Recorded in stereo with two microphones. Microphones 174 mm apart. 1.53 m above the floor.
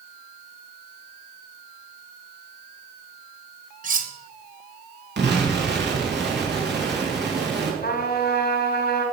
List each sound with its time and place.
3.8 s cutlery clinking: 50° right (ahead or behind), 1.0 m
5.2 s an explosion: 80° right, 3 m
7.8 s a trumpet: 60° left (ahead or behind), 2.5 m